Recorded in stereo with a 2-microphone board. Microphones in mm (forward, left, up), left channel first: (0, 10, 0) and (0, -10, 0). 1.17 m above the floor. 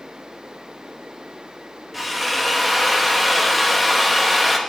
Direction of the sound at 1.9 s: 5° right (ahead or behind).